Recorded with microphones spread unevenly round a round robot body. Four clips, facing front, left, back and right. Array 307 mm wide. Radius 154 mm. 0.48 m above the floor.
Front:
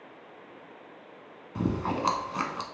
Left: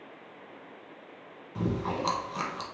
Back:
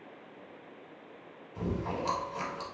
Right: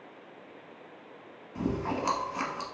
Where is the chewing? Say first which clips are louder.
Even, front 5 dB; 10° left, 1.0 m.